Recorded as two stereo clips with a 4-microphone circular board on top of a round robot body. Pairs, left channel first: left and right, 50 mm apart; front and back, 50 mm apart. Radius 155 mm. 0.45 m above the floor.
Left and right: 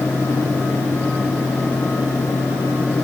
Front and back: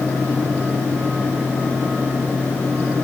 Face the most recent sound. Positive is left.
No sound to turn to.